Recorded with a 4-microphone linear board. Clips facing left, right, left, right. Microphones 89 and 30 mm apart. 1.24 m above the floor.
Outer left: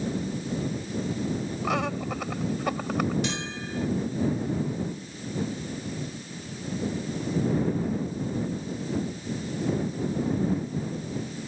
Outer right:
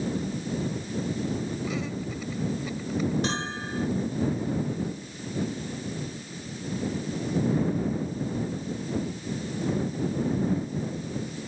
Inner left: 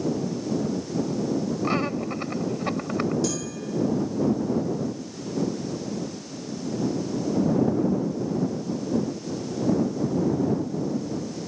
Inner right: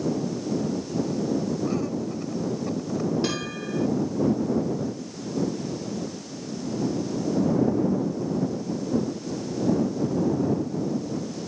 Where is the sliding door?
I don't hear a sliding door.